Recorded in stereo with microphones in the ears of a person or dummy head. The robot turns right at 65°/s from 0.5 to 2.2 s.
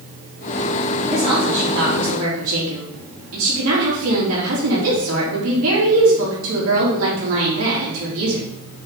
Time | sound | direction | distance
1.1 | a woman speaking | 165° right | 3.5 m